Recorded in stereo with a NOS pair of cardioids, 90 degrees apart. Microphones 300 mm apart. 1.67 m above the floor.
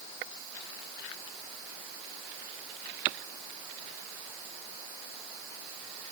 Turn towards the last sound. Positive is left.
No sound to turn to.